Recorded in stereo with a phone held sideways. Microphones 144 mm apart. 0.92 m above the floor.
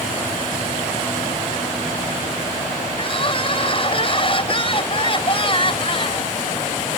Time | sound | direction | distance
3.0 | crying | 40° left (ahead or behind) | ?